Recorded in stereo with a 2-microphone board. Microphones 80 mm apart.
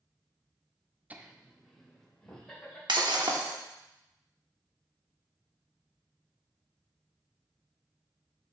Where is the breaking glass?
75° right (ahead or behind), 0.9 m.